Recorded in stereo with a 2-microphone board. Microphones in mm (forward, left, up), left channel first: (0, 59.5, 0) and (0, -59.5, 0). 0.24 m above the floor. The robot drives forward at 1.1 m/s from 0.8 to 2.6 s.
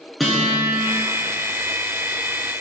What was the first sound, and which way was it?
A guitar, centre (ahead or behind).